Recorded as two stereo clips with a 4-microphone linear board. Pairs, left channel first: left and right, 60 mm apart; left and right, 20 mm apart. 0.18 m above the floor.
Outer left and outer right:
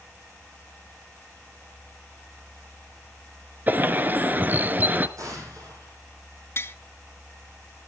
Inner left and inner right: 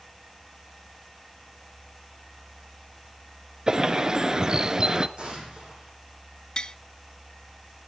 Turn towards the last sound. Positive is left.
turn(degrees=45)  # may be behind; listen again after turning